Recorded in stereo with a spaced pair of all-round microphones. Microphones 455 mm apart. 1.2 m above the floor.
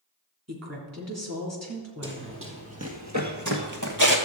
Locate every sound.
0.5 s a woman speaking: 35° right (ahead or behind), 3.5 m
2.0 s running footsteps: 25° right (ahead or behind), 2.0 m; by 4.2 s 45° right (ahead or behind), 1.6 m